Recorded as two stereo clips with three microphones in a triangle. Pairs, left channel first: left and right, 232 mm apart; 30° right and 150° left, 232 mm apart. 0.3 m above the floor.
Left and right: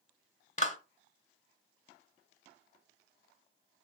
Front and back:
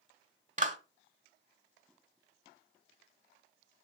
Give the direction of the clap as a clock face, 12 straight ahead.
8 o'clock.